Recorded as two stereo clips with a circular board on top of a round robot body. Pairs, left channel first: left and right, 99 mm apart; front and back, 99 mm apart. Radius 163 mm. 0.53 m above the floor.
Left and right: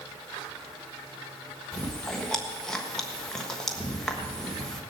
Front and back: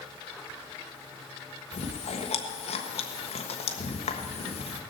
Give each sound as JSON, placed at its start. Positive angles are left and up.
{"t": 1.7, "sound": "chewing", "azimuth_deg": 5, "distance_m": 1.3}